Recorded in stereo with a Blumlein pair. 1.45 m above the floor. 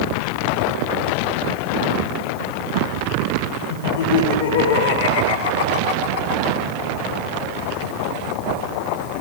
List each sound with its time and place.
3.7 s laughter: 65° left, 4 m; by 6.6 s 55° left, 2.5 m